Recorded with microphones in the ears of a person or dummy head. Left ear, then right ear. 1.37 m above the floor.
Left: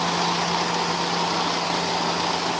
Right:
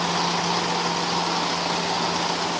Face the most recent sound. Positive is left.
No sound to turn to.